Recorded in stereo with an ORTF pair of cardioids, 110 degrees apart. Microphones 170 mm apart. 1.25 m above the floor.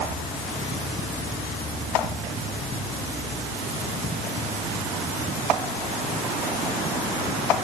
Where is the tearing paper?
No tearing paper in this recording.